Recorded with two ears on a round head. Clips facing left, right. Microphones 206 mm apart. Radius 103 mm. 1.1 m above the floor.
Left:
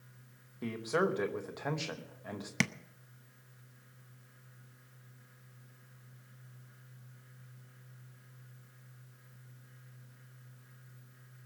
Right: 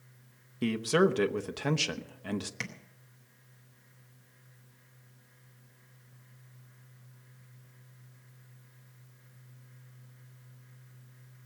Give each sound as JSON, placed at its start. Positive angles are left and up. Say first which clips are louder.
{"t": 0.6, "sound": "a man speaking", "louder": "right 6 dB", "side_deg": -45, "distance_m": 0.9}
{"t": 2.6, "sound": "tapping", "louder": "left 10 dB", "side_deg": 75, "distance_m": 0.7}